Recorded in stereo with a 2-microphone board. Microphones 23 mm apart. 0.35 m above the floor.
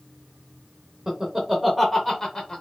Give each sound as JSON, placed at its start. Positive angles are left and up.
{"t": 1.1, "sound": "laughter", "side_deg": -25, "distance_m": 0.9}